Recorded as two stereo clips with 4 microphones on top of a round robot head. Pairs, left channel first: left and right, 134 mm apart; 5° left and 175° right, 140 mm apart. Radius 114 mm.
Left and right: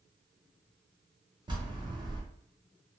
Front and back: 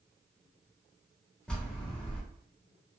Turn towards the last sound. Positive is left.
turn(degrees=-75)